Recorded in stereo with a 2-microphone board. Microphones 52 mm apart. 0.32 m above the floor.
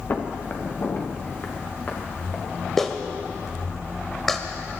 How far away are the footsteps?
About 2 m.